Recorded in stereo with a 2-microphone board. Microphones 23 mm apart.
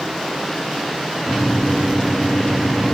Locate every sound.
1.3 s a microwave: 40° left (ahead or behind), 1.1 m